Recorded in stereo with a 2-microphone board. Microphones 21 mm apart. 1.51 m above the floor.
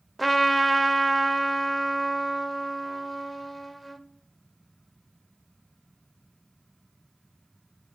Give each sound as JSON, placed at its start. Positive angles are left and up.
{"t": 0.2, "sound": "a trumpet", "side_deg": 0, "distance_m": 0.5}